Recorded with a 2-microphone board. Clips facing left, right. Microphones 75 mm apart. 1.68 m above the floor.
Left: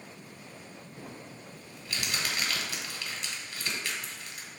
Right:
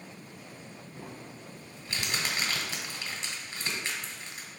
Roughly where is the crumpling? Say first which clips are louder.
Right 1 dB; right.